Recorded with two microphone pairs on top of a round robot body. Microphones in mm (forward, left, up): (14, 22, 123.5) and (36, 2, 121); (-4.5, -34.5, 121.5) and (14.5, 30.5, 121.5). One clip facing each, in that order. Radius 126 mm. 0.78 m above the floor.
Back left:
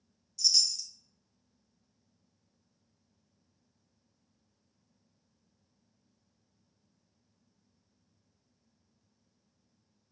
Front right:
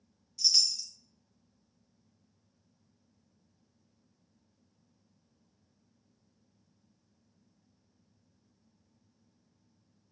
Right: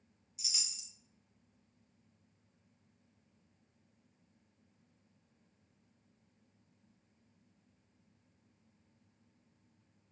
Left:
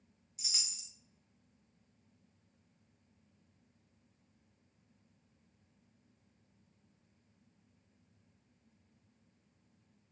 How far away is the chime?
About 0.7 m.